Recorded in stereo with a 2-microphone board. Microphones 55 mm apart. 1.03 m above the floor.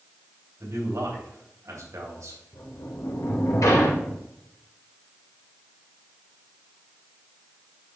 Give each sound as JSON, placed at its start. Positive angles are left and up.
{"t": 0.6, "sound": "a man speaking", "side_deg": -70, "distance_m": 3.0}
{"t": 2.5, "sound": "a sliding door", "side_deg": 75, "distance_m": 1.9}